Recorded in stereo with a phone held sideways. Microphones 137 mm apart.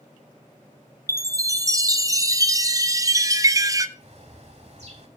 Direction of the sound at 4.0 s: 50° right (ahead or behind).